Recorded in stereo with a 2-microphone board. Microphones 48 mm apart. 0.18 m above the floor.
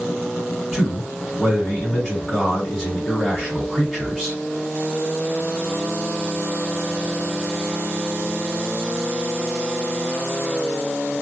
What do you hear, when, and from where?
0.7 s a man speaking: 5° left (ahead or behind), 1.8 m